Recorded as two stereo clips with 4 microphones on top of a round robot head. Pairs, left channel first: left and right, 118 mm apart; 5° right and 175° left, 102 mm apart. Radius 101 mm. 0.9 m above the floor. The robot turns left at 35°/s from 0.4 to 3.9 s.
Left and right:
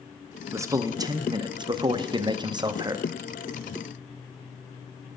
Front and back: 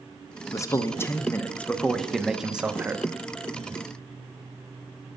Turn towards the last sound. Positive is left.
turn(degrees=-155)